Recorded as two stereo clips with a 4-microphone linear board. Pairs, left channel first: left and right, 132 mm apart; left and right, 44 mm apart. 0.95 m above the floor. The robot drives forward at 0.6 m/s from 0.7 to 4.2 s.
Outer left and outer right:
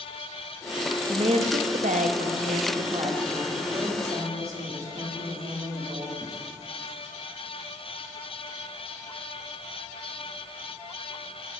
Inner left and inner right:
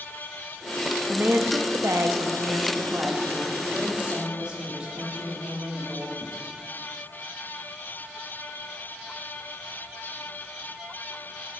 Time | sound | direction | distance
1.1 | a woman speaking | 50° right (ahead or behind) | 0.8 m